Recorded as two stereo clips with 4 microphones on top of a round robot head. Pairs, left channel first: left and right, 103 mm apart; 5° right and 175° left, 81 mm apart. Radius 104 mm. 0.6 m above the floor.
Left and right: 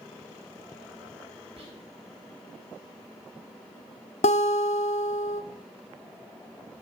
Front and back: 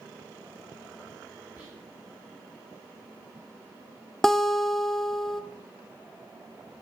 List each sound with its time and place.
1.6 s whispering: 100° right, 3.5 m
4.2 s a guitar: 80° left, 0.7 m